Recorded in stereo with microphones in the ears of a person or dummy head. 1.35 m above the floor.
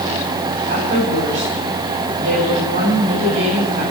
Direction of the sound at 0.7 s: 65° right (ahead or behind).